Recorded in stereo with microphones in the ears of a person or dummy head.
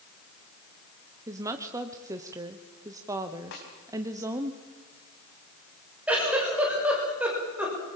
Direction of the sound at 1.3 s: 15° right (ahead or behind).